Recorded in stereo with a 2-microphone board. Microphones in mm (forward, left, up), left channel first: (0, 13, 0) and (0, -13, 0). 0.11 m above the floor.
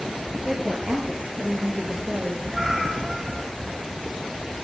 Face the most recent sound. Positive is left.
turn(degrees=-20)  # may be behind; listen again after turning